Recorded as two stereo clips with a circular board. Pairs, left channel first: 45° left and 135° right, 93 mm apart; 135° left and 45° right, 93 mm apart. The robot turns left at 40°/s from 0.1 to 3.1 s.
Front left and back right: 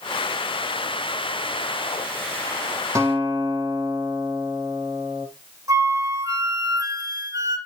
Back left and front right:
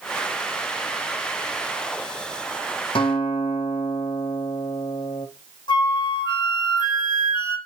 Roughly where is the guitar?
Behind.